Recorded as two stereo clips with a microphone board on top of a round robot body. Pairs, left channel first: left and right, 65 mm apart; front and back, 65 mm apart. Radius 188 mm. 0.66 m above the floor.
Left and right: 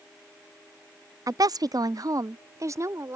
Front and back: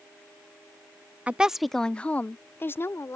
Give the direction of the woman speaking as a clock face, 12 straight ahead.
4 o'clock.